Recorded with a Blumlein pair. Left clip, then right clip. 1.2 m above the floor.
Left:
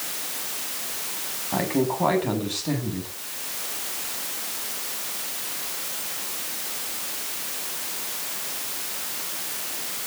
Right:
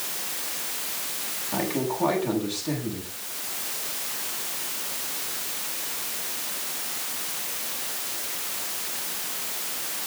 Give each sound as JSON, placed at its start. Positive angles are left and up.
{"t": 1.5, "sound": "a man speaking", "azimuth_deg": 15, "distance_m": 7.5}